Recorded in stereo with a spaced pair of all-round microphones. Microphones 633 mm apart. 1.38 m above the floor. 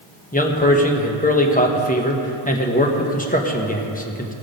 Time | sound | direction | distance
0.3 | a man speaking | 15° left (ahead or behind) | 1.2 m